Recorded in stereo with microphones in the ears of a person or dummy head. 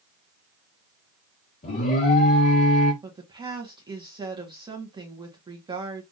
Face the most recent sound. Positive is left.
turn(degrees=-20)  # may be behind; listen again after turning